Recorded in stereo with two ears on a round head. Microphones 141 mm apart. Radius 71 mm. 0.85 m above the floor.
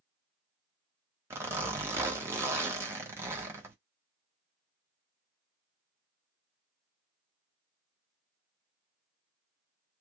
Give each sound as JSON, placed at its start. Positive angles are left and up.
{"t": 1.3, "sound": "a zipper", "side_deg": -15, "distance_m": 1.1}